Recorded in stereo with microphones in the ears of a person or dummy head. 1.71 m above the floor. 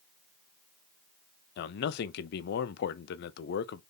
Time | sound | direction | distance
1.6 | a man speaking | 60° left (ahead or behind) | 0.6 m